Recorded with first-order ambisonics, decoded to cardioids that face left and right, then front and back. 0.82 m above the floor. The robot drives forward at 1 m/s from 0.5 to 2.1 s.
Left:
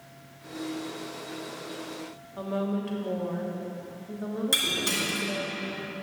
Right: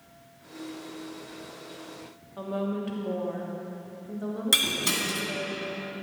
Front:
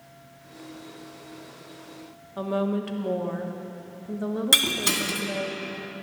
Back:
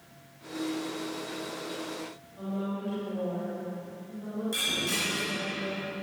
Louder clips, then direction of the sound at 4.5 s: Right 2 dB, front 8 dB; 20° right.